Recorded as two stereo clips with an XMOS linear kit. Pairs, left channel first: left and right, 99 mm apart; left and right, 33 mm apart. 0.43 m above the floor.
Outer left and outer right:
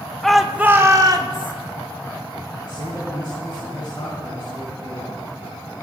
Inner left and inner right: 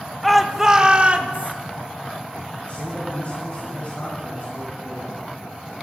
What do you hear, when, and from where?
0.2 s a shout: 5° left (ahead or behind), 0.9 m; by 1.5 s 55° right (ahead or behind), 1.3 m
2.6 s a man speaking: 50° left (ahead or behind), 3.5 m